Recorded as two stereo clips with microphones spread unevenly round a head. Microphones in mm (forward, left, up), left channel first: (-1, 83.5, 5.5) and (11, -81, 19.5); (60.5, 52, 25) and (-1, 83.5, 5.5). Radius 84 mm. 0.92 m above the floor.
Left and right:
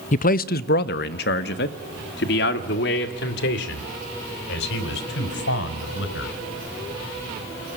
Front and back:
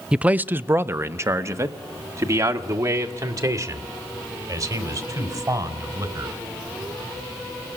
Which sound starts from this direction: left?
A man speaking, at 0.1 s.